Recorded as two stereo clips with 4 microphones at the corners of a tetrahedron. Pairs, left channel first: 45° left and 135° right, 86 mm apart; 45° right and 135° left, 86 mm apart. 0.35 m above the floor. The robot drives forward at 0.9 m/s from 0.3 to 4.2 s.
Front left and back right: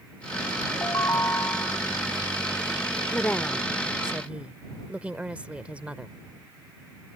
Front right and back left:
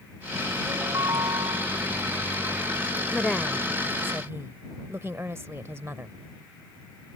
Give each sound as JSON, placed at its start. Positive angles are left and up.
{"t": 0.7, "sound": "a ringtone", "azimuth_deg": 90}
{"t": 3.1, "sound": "a woman speaking", "azimuth_deg": 25}